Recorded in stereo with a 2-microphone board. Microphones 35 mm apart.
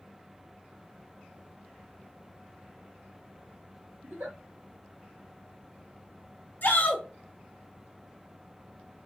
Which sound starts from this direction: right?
A giggle, at 4.0 s.